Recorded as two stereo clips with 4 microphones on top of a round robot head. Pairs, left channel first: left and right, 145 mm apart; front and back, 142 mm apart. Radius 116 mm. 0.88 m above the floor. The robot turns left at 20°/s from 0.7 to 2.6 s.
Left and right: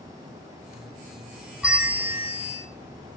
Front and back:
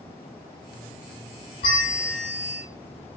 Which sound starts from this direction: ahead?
A bell, at 1.6 s.